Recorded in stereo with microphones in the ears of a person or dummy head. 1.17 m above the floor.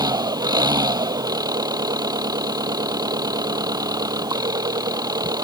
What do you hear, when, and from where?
0.0 s an engine running: 20° right (ahead or behind)